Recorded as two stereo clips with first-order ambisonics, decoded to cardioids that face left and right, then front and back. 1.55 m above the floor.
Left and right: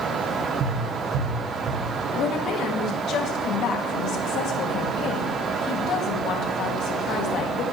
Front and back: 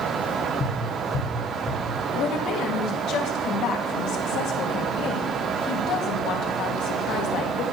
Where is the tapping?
55° right, 4 m.